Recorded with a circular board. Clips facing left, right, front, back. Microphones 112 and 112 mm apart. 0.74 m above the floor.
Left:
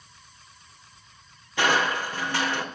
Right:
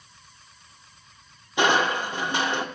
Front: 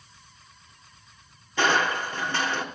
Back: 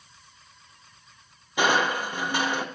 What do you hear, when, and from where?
1.6 s crushing: 125° right, 0.7 m